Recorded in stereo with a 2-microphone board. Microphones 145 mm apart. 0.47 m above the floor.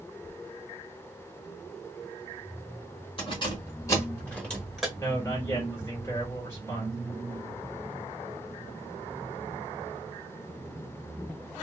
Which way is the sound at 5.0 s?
20° left (ahead or behind).